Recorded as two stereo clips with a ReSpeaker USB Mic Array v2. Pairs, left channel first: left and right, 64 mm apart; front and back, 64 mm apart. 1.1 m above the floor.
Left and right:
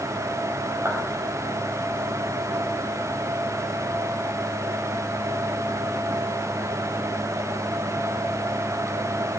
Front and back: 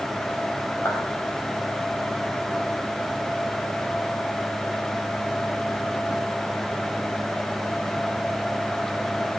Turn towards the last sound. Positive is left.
turn(degrees=-45)